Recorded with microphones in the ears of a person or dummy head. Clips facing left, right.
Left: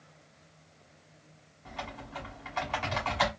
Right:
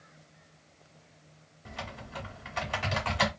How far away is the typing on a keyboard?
About 1.2 m.